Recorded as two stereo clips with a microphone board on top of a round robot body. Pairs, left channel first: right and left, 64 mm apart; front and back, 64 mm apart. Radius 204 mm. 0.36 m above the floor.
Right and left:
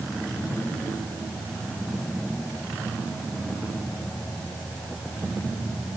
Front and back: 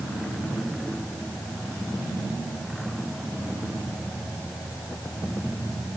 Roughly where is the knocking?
No knocking in this recording.